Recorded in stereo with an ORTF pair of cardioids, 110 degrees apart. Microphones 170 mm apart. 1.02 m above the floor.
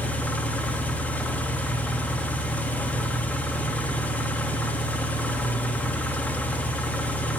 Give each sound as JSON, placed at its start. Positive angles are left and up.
{"t": 0.0, "sound": "an engine running", "azimuth_deg": 10, "distance_m": 1.6}